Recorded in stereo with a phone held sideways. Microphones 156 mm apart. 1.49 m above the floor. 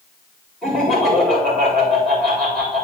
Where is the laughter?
5° left (ahead or behind), 4.5 m.